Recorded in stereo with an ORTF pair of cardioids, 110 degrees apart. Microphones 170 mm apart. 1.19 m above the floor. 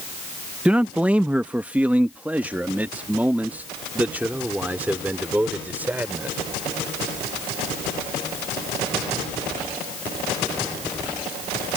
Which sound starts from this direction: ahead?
A man speaking, at 0.7 s.